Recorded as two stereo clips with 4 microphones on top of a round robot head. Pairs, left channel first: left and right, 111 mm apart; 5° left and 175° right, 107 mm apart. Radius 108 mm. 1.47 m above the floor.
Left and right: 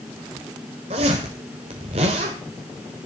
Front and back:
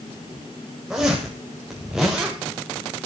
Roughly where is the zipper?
Right.